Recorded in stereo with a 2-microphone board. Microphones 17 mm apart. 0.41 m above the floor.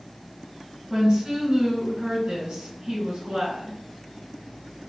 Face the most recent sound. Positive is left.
turn(degrees=-60)  # may be behind; listen again after turning